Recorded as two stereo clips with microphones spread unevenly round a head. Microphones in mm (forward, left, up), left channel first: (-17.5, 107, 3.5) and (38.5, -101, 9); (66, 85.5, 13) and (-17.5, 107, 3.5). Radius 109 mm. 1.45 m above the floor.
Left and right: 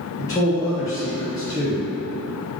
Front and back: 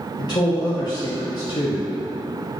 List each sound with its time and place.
0.2 s a man speaking: 30° left, 0.7 m